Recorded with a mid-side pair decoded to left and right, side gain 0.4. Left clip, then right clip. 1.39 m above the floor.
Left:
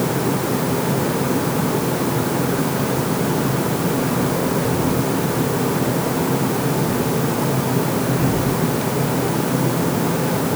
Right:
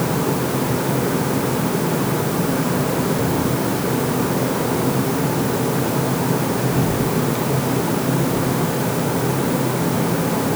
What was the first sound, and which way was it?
Only background noise.